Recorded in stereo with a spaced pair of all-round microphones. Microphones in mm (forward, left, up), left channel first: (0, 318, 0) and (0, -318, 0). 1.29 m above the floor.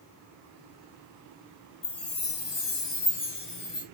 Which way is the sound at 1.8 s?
40° left (ahead or behind).